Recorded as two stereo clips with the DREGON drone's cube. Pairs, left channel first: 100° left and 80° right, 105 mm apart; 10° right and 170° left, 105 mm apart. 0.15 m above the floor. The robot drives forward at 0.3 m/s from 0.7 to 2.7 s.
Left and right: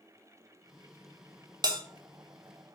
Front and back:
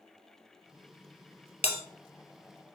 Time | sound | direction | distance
1.6 | a bell | 30° right | 0.6 m